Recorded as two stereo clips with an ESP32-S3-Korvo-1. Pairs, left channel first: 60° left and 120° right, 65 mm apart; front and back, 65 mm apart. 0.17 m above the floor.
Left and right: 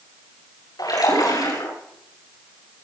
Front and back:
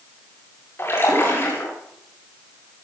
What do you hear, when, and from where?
0.8 s a splash: 50° left, 9.5 m